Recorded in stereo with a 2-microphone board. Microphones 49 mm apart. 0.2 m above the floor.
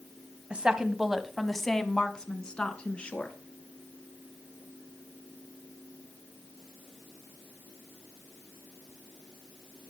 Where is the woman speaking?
20° right (ahead or behind), 1.0 m; by 3.4 s 20° left (ahead or behind), 2.5 m.